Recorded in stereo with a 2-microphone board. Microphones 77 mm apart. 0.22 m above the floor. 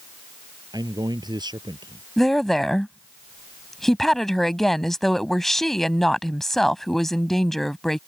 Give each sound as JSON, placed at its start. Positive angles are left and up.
{"t": 0.7, "sound": "a man speaking", "side_deg": -60}
{"t": 2.2, "sound": "a woman speaking", "side_deg": 5}